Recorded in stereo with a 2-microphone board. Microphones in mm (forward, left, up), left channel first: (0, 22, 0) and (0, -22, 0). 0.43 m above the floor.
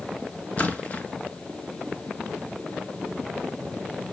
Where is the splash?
30° left (ahead or behind), 1.3 m.